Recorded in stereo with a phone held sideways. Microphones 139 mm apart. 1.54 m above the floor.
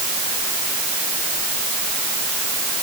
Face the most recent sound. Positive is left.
No sound to turn to.